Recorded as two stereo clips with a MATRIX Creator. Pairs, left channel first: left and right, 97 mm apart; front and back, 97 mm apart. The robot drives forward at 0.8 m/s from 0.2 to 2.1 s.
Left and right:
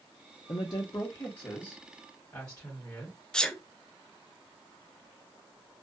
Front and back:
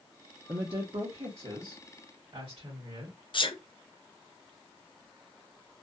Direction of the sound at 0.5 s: 125° left.